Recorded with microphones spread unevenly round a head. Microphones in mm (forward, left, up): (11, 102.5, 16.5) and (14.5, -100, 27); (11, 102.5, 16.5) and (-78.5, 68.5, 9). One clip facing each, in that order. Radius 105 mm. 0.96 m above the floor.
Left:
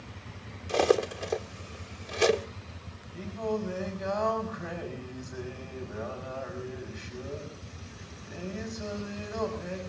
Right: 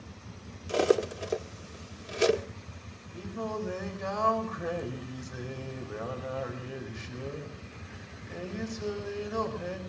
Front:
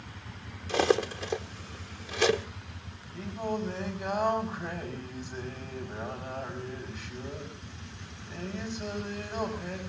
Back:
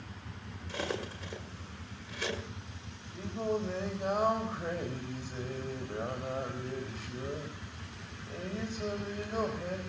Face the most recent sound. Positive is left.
turn(degrees=-95)